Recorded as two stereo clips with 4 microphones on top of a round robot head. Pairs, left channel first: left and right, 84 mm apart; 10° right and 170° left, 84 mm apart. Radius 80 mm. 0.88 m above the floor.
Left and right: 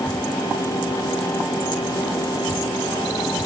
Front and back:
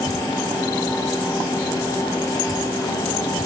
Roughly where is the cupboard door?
No cupboard door in this recording.